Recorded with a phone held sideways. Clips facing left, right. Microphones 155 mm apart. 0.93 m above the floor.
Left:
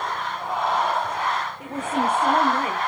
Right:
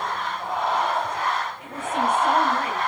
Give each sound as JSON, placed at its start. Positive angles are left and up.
{"t": 1.6, "sound": "a woman speaking", "side_deg": 45, "distance_m": 2.5}